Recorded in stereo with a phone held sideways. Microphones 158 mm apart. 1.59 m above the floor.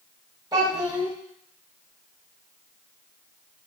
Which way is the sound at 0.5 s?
25° right (ahead or behind).